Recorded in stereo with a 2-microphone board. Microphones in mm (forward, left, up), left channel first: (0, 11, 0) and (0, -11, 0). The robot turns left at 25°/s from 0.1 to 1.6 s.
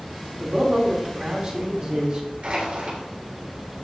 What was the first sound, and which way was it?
A man speaking, 85° right.